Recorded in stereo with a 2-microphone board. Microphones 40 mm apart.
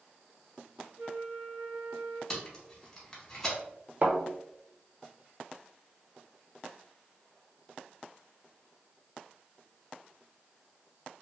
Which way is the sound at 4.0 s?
50° right (ahead or behind).